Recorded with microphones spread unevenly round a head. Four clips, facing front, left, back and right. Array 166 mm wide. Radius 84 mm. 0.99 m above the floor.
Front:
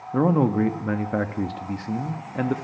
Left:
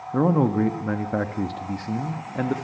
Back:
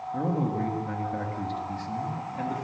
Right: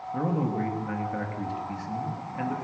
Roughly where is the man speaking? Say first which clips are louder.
Left 8 dB, front 9 dB; ahead left.